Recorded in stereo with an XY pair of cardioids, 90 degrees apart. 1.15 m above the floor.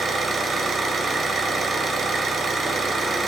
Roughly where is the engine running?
Ahead right.